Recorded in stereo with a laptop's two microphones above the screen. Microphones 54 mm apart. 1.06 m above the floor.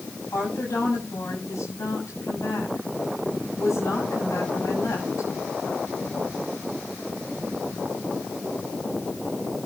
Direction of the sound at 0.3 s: 80° left.